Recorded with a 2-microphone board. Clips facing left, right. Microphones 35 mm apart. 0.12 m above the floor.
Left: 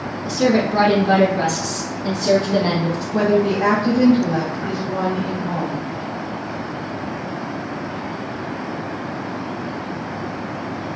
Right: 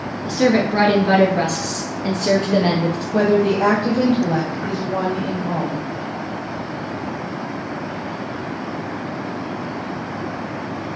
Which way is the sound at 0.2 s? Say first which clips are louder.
Right 1 dB; 35° right (ahead or behind).